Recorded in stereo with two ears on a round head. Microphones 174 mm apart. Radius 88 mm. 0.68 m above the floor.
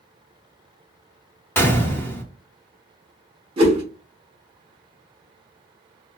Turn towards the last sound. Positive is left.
turn(degrees=-25)  # may be behind; listen again after turning